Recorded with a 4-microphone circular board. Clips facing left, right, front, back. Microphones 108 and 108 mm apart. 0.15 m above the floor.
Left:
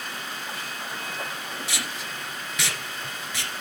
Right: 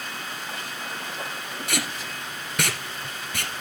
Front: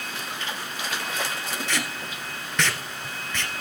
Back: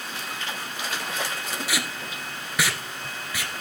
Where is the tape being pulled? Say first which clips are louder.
Right 3 dB, even; 100° right, 1.6 m.